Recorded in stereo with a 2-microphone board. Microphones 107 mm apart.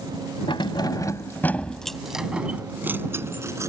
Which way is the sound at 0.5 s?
50° left (ahead or behind).